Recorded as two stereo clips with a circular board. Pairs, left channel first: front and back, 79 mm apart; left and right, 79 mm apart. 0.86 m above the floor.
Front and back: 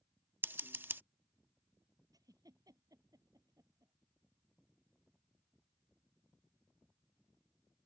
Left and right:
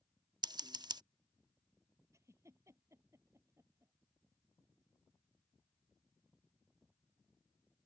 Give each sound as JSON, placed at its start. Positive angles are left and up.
{"t": 0.4, "sound": "scissors", "azimuth_deg": -115}
{"t": 2.1, "sound": "a giggle", "azimuth_deg": -140}